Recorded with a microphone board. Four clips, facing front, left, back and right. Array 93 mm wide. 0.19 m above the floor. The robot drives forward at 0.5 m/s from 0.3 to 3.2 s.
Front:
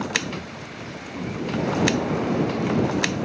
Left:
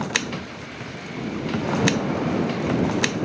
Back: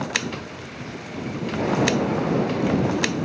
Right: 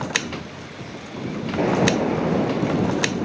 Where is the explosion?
95° right, 1.6 m; by 3.1 s 125° right, 1.8 m.